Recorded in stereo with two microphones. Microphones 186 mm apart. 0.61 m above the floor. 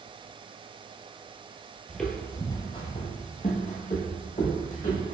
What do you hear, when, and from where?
1.9 s footsteps: centre (ahead or behind), 0.7 m; by 5.2 s 45° left (ahead or behind), 1.5 m